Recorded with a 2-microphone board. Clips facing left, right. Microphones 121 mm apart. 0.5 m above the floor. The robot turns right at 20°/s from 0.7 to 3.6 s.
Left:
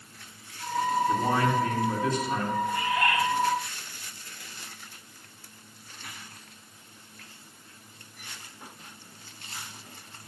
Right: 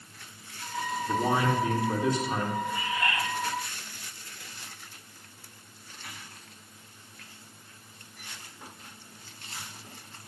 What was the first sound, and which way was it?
A man speaking, 160° right.